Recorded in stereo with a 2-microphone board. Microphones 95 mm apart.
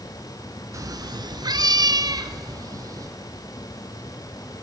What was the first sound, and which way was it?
A cat meowing, 35° right (ahead or behind).